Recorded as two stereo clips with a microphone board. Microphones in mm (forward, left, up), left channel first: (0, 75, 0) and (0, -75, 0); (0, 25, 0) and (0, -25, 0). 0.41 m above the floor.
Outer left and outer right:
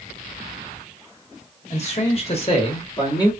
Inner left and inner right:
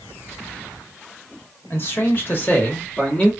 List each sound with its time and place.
1.7 s a man speaking: 45° left (ahead or behind), 1.2 m; by 3.3 s 25° left (ahead or behind), 0.9 m